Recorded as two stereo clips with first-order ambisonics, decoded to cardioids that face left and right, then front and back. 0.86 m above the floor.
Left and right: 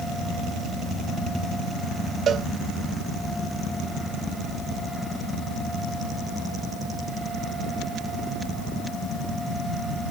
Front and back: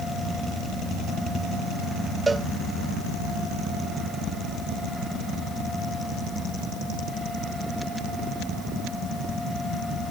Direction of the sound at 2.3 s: 110° right.